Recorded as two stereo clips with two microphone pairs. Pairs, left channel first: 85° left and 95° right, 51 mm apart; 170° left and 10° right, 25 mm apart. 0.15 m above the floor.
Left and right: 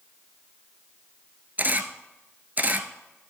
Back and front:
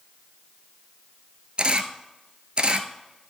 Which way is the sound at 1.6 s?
45° right.